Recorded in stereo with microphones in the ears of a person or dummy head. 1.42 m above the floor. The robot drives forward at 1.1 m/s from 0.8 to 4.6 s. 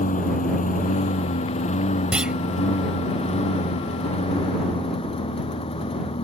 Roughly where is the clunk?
Centre.